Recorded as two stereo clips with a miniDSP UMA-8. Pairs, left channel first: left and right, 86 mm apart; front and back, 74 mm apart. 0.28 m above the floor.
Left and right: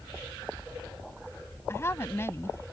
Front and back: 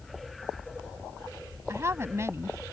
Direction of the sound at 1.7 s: 140° left.